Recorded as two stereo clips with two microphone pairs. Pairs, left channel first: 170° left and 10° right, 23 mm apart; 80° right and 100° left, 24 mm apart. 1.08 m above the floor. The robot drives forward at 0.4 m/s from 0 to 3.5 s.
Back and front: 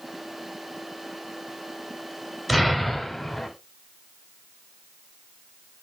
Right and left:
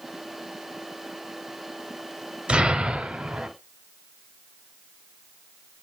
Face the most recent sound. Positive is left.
turn(degrees=115)